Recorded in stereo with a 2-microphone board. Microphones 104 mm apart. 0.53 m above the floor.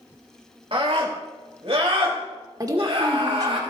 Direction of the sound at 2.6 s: 35° right (ahead or behind).